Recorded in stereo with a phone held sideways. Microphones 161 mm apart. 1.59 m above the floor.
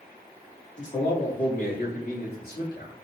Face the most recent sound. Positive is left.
turn(degrees=85)